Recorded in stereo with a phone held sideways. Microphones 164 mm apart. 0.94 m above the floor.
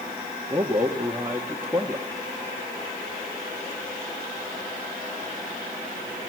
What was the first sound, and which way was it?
A man speaking, 15° right (ahead or behind).